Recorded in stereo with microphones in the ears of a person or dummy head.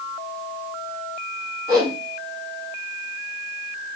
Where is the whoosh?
25° right (ahead or behind), 1.1 m.